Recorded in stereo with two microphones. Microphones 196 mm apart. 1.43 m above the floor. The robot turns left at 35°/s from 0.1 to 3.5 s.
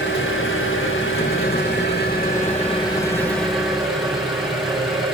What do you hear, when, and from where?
0.0 s an engine running: 115° left, 5.5 m; by 5.2 s straight ahead, 5.5 m